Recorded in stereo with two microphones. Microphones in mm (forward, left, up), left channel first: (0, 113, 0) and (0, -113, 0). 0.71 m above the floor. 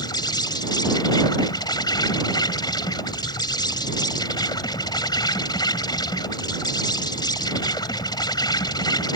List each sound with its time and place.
0.0 s an insect: 20° left (ahead or behind)